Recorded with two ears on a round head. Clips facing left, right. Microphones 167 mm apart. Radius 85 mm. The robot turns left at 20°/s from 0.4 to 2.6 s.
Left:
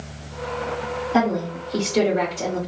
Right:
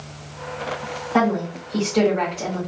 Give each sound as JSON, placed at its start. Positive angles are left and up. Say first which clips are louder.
{"t": 1.1, "sound": "a woman speaking", "louder": "right 1 dB", "side_deg": 30, "distance_m": 2.0}